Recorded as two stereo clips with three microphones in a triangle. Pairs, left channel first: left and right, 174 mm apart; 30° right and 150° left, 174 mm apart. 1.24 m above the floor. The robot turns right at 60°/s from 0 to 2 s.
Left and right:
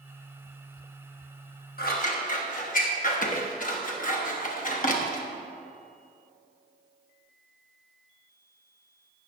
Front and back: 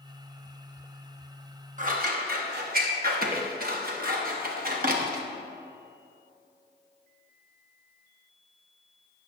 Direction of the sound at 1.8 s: 110° left.